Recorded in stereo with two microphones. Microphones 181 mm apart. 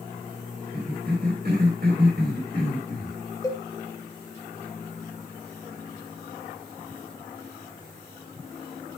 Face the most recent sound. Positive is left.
turn(degrees=20)  # may be behind; listen again after turning